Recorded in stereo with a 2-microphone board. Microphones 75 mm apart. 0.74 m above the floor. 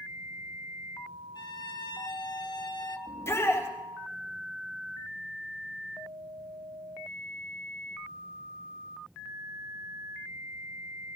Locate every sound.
1.4 s a violin: 70° left (ahead or behind), 1.6 m
3.1 s a shout: 35° left (ahead or behind), 3.5 m